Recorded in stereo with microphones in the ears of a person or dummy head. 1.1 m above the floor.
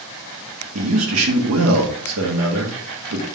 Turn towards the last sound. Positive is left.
turn(degrees=-75)  # may be behind; listen again after turning